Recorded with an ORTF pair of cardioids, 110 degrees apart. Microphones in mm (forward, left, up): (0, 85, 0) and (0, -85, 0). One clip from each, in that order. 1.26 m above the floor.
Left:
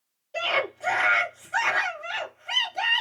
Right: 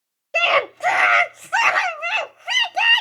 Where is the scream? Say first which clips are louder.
Right 8 dB; 70° right, 0.9 m.